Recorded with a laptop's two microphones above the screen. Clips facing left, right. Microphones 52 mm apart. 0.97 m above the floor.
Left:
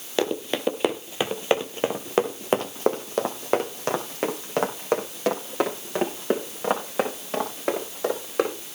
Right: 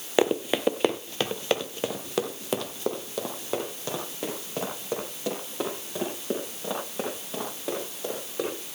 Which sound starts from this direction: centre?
Running footsteps, at 0.2 s.